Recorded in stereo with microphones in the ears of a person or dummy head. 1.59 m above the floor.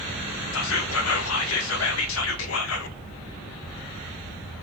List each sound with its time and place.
0.5 s whispering: 70° left (ahead or behind), 0.5 m